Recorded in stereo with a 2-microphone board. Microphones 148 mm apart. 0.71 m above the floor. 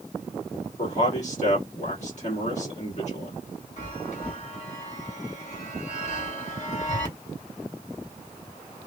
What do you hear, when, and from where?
0.8 s a man speaking: 50° left (ahead or behind), 1.6 m
3.8 s a chime: 55° left (ahead or behind), 1.0 m